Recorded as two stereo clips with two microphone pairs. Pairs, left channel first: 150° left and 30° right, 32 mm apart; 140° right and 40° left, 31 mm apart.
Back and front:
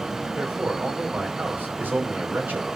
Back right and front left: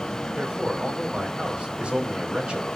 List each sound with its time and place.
0.3 s a man speaking: 15° right, 3 m